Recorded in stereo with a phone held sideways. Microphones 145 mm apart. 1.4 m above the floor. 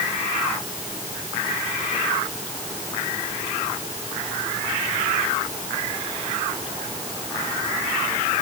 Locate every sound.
Only background noise.